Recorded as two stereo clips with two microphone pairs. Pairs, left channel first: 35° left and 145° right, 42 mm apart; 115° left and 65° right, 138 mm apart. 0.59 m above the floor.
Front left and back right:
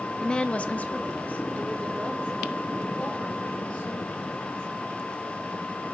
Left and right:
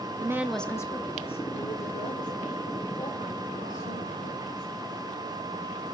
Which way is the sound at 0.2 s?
30° right.